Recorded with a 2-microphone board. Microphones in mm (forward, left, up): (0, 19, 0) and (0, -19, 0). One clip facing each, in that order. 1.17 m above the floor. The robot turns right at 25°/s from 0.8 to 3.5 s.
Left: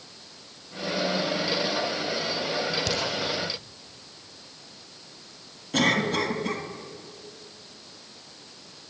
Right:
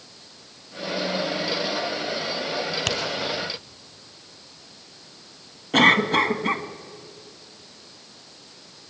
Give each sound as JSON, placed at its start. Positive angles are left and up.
{"t": 2.9, "sound": "a finger snap", "side_deg": -75, "distance_m": 3.5}
{"t": 5.7, "sound": "a cough", "side_deg": -45, "distance_m": 2.0}